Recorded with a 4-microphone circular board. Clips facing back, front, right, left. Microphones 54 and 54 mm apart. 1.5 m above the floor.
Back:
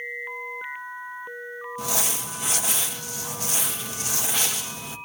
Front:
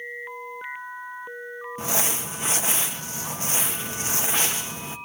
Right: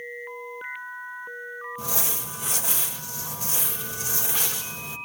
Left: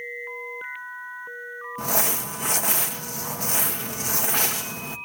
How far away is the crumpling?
About 1.3 m.